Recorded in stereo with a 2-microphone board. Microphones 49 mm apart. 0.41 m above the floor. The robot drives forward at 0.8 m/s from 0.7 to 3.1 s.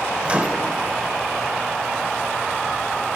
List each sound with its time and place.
0.2 s a microwave: 30° right (ahead or behind), 0.9 m